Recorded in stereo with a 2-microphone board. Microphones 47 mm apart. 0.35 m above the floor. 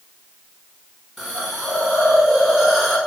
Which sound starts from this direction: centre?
A hiss, at 1.2 s.